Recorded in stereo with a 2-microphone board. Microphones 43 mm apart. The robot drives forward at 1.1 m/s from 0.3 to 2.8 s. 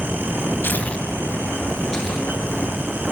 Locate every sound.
0.6 s tearing paper: 55° left (ahead or behind), 0.5 m; by 3.1 s 10° left (ahead or behind), 2.5 m